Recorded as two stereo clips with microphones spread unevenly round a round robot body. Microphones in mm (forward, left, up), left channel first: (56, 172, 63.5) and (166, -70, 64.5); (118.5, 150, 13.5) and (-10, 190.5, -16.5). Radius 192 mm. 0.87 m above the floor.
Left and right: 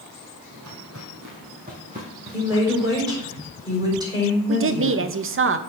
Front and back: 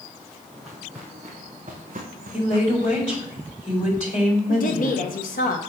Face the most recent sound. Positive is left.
turn(degrees=-30)